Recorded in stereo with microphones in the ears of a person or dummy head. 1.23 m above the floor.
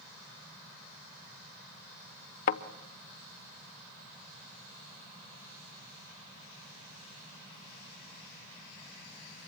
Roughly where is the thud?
Left.